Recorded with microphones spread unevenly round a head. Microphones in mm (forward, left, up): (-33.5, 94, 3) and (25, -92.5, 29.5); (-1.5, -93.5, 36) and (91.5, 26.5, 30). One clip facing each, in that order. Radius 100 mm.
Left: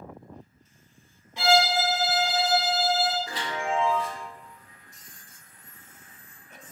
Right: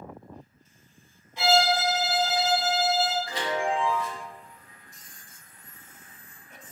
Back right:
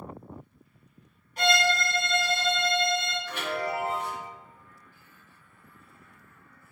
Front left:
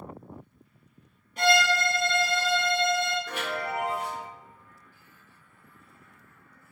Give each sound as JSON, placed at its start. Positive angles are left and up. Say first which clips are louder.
{"t": 1.4, "sound": "a violin", "louder": "even, front left 2 dB", "azimuth_deg": 80, "distance_m": 1.0}
{"t": 3.3, "sound": "a chime", "louder": "right 3 dB, back right 1 dB", "azimuth_deg": 90, "distance_m": 1.6}